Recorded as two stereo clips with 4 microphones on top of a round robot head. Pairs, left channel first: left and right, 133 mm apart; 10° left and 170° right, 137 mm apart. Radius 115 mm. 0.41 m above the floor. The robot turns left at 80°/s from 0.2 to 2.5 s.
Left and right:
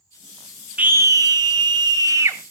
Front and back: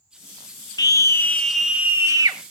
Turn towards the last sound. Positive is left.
turn(degrees=-155)